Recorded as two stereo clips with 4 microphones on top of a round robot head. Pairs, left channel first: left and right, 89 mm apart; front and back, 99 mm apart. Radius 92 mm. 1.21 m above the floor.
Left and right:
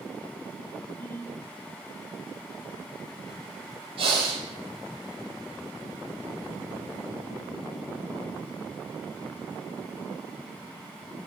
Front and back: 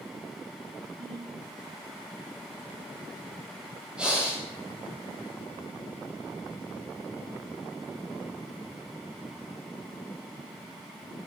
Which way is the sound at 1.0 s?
155° left.